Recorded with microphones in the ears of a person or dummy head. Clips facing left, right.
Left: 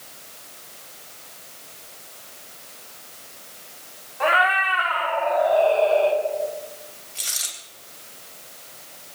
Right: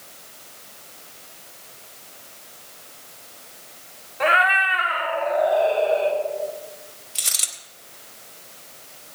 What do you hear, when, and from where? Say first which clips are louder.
4.2 s a cat meowing: even; 35° right (ahead or behind), 1.9 m; by 6.2 s 25° right (ahead or behind), 3.5 m
7.2 s a dropped coin: right 1 dB; 60° right (ahead or behind), 3 m